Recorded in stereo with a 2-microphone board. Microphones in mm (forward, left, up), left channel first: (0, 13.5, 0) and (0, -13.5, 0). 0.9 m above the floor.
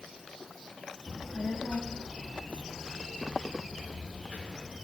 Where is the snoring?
No snoring in this recording.